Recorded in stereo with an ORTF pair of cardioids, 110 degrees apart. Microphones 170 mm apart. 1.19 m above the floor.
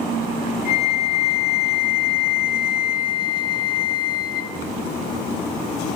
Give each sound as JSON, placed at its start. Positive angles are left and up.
{"t": 0.7, "sound": "a flute", "azimuth_deg": 65, "distance_m": 1.0}